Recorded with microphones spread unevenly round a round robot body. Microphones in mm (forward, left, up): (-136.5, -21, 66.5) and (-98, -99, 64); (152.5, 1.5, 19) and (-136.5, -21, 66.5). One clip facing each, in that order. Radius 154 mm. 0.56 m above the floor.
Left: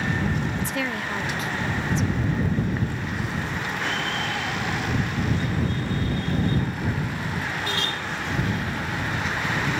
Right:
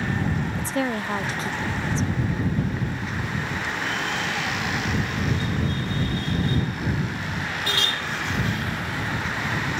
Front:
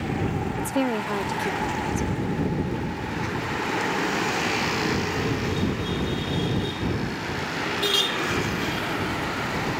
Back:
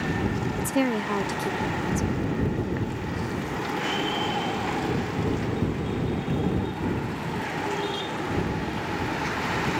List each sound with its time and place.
0.6 s a woman speaking: 90° right